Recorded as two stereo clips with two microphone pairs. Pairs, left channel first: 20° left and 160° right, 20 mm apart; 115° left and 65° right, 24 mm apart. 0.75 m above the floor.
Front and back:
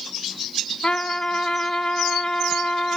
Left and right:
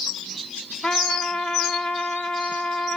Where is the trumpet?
65° left, 2 m.